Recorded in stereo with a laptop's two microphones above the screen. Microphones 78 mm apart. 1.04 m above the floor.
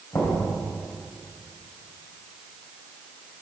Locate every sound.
0.1 s knocking: 30° left (ahead or behind), 3.5 m